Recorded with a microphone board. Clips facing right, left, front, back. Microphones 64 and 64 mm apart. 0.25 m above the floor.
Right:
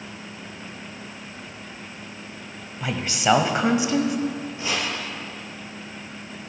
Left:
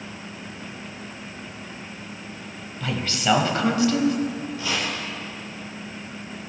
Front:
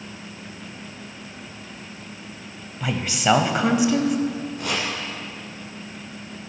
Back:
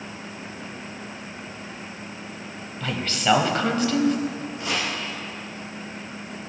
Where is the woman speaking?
55° right, 0.9 m.